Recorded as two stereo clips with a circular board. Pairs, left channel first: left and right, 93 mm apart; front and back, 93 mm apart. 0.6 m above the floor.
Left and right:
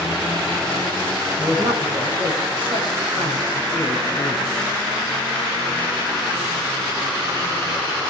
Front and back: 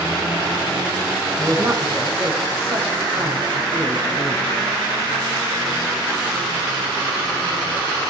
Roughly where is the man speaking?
Behind right.